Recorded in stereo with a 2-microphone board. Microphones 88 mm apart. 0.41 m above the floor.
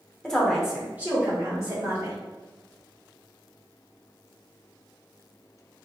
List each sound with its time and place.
0.2 s a woman speaking: 10° left (ahead or behind), 0.8 m; by 2.2 s 45° right (ahead or behind), 1.3 m